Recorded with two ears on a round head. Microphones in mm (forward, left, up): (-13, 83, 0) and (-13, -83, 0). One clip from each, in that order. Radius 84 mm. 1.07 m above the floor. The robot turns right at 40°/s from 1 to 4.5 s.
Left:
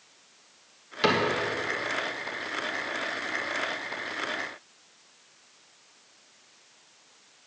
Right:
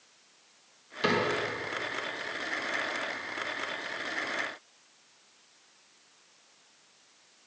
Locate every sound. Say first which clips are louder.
1.0 s a cupboard door: left 3 dB; 15° left (ahead or behind), 1.1 m; by 1.2 s 25° left (ahead or behind), 1.1 m